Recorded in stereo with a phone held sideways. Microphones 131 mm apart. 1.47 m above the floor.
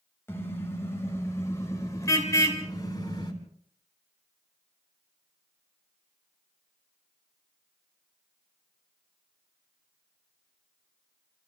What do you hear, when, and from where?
0.3 s a car horn: 20° left (ahead or behind), 5 m; by 3.3 s 35° left (ahead or behind), 3 m